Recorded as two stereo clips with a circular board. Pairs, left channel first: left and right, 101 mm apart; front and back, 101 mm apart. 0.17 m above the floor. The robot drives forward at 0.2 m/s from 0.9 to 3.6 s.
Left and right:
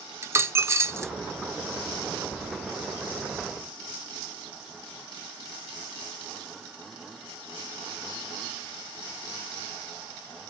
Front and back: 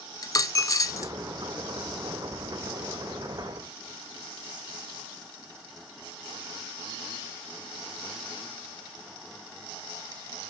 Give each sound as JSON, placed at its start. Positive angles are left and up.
{"t": 0.2, "sound": "a dropped coin", "azimuth_deg": -35, "distance_m": 0.5}